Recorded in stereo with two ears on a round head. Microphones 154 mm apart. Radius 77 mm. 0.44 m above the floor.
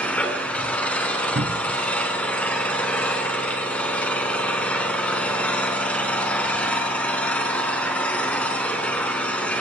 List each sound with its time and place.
0.0 s an engine running: 10° left (ahead or behind), 4 m
1.4 s a cupboard door: 55° right (ahead or behind), 1.5 m